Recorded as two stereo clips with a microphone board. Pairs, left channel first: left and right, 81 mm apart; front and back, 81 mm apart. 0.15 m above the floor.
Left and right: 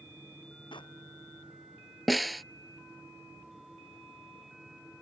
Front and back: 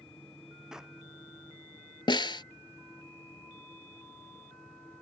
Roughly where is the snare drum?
Ahead.